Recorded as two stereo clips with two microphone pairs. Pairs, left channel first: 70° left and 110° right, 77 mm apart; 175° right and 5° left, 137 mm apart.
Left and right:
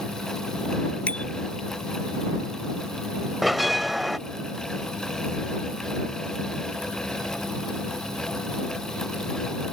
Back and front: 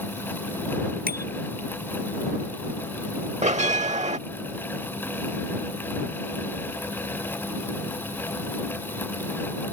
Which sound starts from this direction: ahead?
A bicycle bell, at 1.1 s.